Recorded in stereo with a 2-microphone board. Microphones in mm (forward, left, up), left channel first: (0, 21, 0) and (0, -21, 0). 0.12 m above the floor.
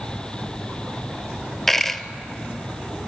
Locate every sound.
1.7 s a dropped coin: 10° left (ahead or behind), 0.7 m